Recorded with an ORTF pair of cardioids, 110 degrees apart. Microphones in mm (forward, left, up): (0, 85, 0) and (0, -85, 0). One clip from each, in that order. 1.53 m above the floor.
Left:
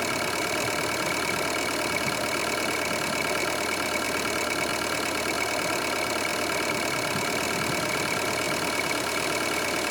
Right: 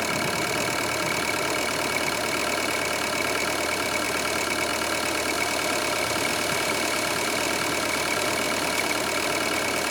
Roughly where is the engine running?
Ahead.